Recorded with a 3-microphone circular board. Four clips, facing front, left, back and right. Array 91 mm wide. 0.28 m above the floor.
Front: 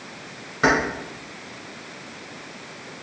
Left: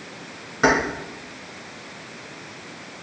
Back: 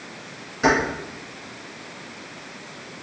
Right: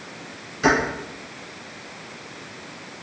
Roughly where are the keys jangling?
Ahead left.